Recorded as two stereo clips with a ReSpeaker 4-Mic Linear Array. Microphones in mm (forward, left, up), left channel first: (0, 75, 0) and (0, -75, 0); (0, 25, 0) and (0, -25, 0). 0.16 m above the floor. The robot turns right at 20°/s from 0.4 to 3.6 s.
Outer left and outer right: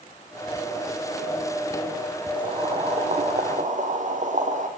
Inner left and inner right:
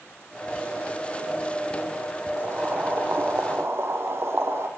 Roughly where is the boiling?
Right.